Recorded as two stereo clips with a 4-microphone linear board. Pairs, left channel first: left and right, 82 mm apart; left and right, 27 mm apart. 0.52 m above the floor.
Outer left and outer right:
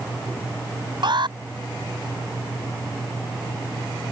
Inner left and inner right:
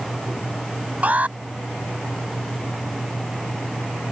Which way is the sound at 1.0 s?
70° right (ahead or behind).